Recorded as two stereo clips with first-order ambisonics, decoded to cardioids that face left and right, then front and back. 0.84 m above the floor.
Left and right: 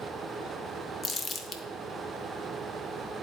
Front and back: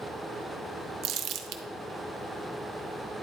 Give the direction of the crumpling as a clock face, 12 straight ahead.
7 o'clock.